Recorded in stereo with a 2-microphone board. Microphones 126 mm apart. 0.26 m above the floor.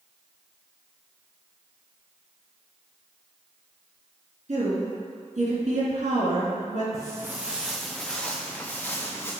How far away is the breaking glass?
No breaking glass in this recording.